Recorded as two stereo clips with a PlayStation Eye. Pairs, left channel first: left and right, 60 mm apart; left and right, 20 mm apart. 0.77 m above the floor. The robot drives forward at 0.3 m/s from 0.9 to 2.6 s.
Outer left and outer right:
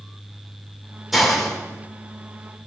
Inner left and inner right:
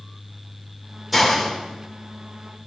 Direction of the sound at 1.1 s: Centre (ahead or behind).